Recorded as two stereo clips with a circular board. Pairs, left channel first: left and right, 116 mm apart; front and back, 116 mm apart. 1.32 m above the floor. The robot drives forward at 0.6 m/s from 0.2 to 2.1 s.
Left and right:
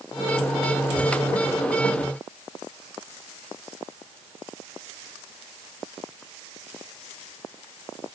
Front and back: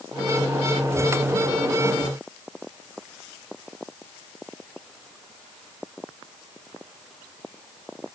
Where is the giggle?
No giggle in this recording.